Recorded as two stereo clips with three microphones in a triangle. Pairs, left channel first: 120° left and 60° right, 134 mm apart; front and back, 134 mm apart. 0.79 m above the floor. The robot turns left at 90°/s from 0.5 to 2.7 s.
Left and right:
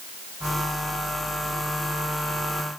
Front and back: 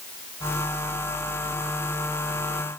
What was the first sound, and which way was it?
Only background noise.